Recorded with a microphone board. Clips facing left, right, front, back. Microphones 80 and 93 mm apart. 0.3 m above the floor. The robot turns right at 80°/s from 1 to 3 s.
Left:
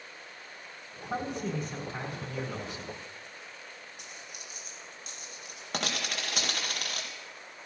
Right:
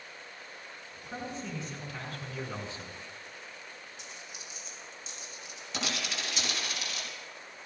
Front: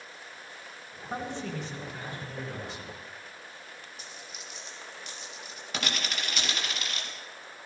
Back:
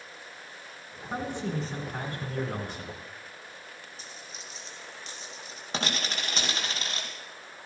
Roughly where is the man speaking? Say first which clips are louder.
Left 6 dB, back 3 dB; left.